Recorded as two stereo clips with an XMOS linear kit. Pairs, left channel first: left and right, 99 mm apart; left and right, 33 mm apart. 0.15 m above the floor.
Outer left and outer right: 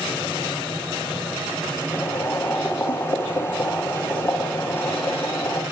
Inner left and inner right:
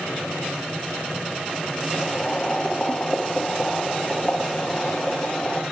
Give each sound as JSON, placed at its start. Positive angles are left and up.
{"t": 1.9, "sound": "boiling", "side_deg": 25, "distance_m": 1.9}